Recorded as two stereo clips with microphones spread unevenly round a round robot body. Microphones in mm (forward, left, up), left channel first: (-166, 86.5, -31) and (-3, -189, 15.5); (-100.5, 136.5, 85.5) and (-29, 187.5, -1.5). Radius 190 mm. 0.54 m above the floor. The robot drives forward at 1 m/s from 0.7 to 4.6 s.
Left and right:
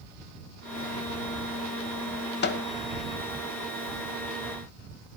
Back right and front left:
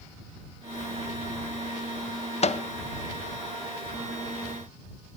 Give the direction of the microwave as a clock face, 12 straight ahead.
7 o'clock.